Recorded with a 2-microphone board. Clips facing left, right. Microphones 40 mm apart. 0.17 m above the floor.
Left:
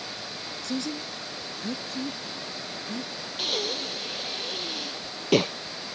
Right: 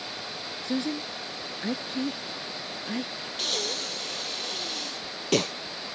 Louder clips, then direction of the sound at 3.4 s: Left 2 dB; 10° left (ahead or behind).